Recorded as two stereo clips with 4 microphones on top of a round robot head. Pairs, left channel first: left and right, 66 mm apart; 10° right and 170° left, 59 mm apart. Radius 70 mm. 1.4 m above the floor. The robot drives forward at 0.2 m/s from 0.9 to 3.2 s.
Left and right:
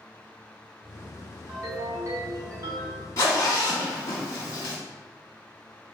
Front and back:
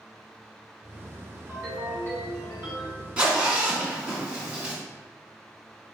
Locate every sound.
1.5 s a ringtone: 130° right, 1.2 m; by 3.1 s 140° right, 1.4 m
3.2 s a zipper: 115° left, 0.9 m; by 4.8 s 120° left, 0.9 m